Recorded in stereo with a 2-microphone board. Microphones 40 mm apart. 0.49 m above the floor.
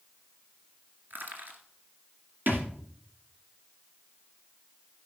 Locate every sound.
1.1 s crushing: 50° right (ahead or behind), 1.9 m
2.5 s a thud: 55° right (ahead or behind), 2.5 m